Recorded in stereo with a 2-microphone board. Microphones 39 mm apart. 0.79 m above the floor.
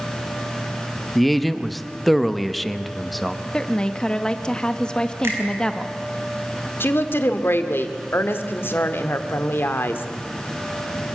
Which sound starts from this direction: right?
A finger snap, at 5.2 s.